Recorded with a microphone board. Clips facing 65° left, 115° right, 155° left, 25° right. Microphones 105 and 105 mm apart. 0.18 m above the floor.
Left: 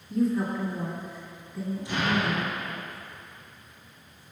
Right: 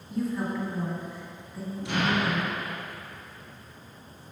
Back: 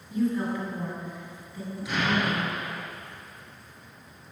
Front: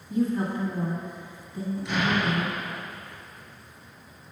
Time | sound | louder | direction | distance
0.1 | a woman speaking | left 4 dB, front 1 dB | 25° right | 1.6 m
1.9 | an explosion | right 1 dB, even | 115° right | 1.7 m